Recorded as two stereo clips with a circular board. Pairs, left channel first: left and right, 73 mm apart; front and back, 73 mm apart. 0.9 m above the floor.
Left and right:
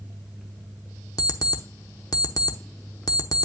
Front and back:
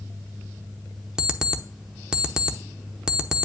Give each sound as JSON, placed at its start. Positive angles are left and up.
{"t": 1.2, "sound": "an alarm clock", "azimuth_deg": 100, "distance_m": 0.8}